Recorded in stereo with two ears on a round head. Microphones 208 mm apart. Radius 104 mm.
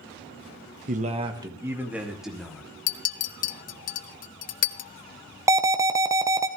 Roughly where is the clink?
Left.